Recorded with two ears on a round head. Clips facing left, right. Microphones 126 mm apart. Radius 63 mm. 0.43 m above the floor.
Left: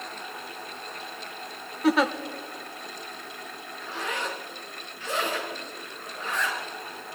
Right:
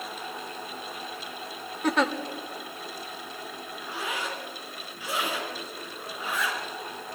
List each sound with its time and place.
1.8 s a giggle: centre (ahead or behind), 1.3 m
3.8 s a zipper: 10° right (ahead or behind), 3.5 m